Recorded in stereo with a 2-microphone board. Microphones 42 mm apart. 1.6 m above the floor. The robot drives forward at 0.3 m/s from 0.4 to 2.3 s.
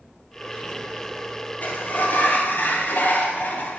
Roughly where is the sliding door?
Left.